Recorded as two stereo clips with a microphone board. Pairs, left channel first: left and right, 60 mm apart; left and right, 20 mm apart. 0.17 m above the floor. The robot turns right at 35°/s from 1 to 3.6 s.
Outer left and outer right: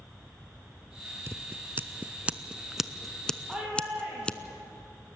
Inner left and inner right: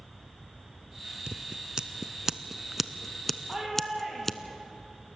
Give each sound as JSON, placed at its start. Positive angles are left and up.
{"t": 1.3, "sound": "scissors", "side_deg": -45, "distance_m": 0.6}
{"t": 3.5, "sound": "a shout", "side_deg": -10, "distance_m": 5.0}